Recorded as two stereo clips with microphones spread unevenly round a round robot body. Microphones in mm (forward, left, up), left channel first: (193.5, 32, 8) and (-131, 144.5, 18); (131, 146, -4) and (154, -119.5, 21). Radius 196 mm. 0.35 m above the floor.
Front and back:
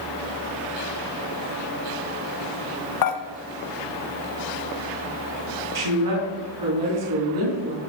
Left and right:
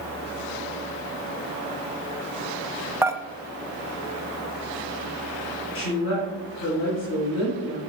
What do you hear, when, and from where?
3.0 s dishes clattering: straight ahead, 1.1 m
5.8 s a woman speaking: 145° left, 3 m